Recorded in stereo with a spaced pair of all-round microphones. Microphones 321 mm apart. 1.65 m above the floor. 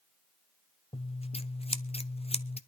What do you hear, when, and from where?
0.9 s scissors: 20° left (ahead or behind), 0.6 m